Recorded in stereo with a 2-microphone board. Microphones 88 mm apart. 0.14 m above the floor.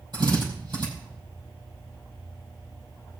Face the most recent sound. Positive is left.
turn(degrees=-55)  # may be behind; listen again after turning